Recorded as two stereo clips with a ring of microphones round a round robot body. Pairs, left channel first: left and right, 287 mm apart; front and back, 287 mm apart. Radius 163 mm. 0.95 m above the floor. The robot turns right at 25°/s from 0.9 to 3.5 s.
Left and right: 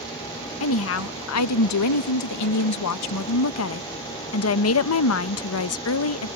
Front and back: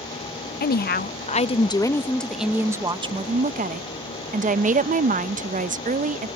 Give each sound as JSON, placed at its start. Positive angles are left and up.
{"t": 0.6, "sound": "a woman speaking", "azimuth_deg": 55}